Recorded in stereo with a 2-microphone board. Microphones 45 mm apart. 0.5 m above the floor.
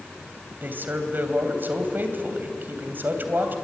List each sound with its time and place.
0.6 s a man speaking: 45° right (ahead or behind), 3 m